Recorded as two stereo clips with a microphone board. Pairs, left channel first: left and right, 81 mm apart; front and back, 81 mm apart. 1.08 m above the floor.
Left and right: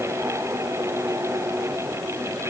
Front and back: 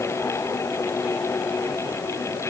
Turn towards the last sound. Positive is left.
No sound to turn to.